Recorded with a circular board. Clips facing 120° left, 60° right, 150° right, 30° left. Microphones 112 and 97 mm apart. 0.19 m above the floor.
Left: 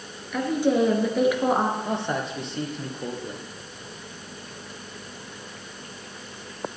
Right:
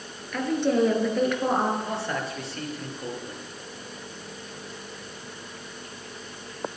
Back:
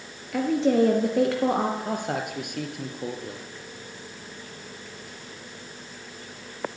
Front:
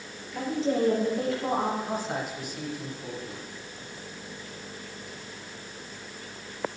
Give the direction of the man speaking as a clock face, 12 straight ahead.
6 o'clock.